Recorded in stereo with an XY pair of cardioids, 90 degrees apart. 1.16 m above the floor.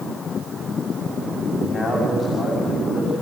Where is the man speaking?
45° left, 6.5 m.